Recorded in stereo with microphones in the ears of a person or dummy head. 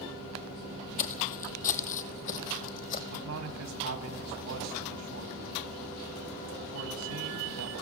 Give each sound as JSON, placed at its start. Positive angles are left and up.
{"t": 1.0, "sound": "footsteps", "side_deg": 40, "distance_m": 2.0}
{"t": 3.1, "sound": "a man speaking", "side_deg": -80, "distance_m": 2.5}